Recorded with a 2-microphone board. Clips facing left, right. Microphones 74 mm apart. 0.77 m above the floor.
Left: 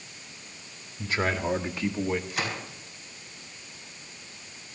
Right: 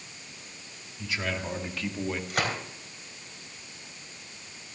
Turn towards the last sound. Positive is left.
turn(degrees=-55)  # may be behind; listen again after turning